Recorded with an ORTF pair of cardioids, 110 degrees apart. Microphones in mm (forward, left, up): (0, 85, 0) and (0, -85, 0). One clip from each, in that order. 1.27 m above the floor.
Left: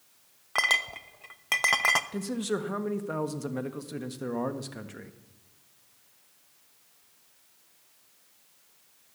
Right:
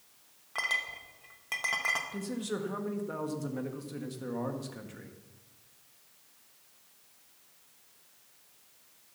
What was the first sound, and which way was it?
A clink, 50° left.